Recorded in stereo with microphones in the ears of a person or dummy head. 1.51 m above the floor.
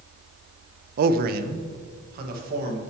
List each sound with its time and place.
1.0 s a man speaking: 50° right (ahead or behind), 0.5 m; by 2.8 s 55° right (ahead or behind), 2.0 m